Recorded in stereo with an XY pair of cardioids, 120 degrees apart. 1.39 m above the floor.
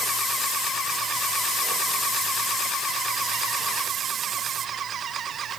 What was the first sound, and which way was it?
Only background noise.